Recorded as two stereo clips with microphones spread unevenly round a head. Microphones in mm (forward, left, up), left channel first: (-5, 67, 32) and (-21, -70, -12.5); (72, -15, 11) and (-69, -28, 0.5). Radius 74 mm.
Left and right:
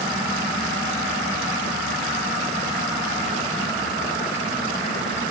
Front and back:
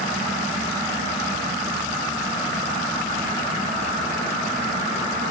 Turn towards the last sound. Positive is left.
No sound to turn to.